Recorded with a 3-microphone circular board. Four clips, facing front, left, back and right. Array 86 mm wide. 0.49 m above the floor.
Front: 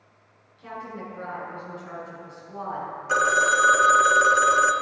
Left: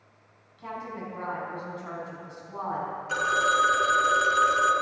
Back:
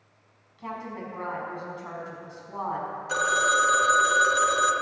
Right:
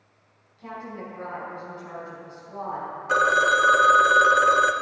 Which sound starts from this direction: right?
A phone ringing, at 3.1 s.